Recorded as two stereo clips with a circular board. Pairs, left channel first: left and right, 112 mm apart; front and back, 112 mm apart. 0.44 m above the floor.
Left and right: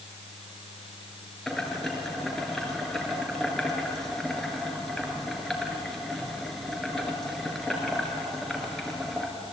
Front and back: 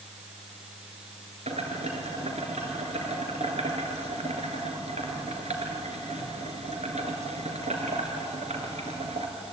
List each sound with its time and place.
1.5 s boiling: 175° left, 3.5 m